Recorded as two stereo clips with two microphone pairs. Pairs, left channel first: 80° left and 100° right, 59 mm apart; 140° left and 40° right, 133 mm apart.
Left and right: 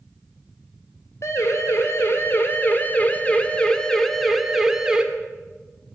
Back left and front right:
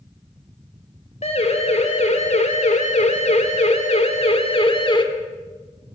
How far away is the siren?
About 3.5 m.